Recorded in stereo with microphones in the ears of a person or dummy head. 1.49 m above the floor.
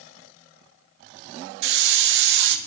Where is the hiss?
70° right (ahead or behind), 0.9 m.